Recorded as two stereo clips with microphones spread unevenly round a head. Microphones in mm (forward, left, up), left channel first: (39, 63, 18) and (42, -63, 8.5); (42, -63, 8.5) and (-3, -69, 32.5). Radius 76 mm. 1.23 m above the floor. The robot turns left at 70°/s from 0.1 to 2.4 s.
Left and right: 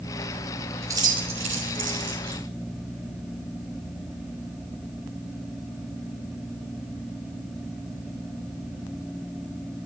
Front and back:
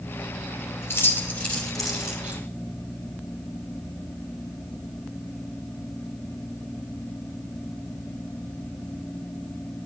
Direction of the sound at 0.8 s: 20° right.